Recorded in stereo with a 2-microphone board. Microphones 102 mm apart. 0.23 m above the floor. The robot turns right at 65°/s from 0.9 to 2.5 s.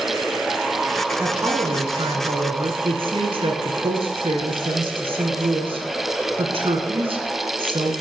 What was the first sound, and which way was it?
A woman speaking, 160° right.